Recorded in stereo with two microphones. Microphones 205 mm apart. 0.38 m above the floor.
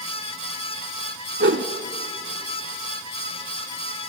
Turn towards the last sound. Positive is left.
turn(degrees=-70)  # may be behind; listen again after turning